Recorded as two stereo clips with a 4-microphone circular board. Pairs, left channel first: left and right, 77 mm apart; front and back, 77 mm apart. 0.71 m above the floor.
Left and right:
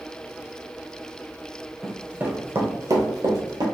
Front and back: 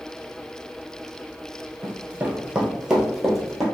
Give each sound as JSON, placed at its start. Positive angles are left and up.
{"t": 1.8, "sound": "running footsteps", "azimuth_deg": -170, "distance_m": 0.7}